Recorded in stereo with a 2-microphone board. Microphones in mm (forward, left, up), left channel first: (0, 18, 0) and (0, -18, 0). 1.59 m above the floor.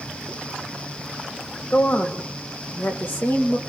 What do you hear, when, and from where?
1.7 s a woman speaking: 65° left (ahead or behind), 3 m; by 3.6 s 85° left, 2.5 m